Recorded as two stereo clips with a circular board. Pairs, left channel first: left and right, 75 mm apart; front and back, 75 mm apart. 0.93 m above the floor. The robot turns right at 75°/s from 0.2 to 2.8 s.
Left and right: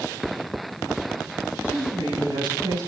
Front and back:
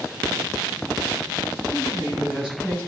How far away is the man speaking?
About 9 m.